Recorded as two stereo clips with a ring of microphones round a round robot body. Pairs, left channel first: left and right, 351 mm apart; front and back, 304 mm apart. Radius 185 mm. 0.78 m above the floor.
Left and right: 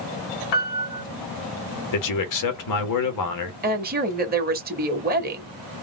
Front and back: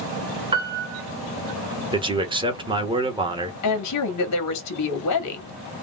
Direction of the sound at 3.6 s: 25° right.